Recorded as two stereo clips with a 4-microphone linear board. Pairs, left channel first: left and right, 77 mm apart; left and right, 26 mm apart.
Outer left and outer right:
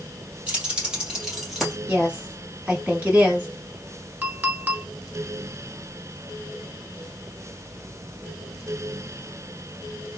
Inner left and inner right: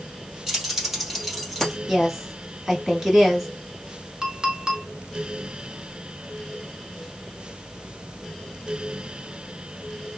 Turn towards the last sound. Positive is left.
turn(degrees=-25)  # may be behind; listen again after turning